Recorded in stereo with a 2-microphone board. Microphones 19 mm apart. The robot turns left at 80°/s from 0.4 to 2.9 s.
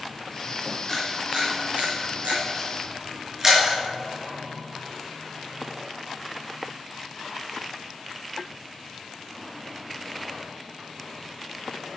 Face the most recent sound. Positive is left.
turn(degrees=-25)  # may be behind; listen again after turning